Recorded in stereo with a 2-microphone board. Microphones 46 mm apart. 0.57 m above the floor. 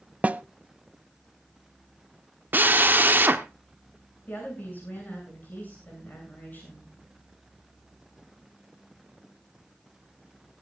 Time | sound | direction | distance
0.2 | a snare drum | 30° right (ahead or behind) | 0.5 m
2.5 | a drill | 45° right (ahead or behind) | 1.2 m
4.3 | a woman speaking | 40° left (ahead or behind) | 8 m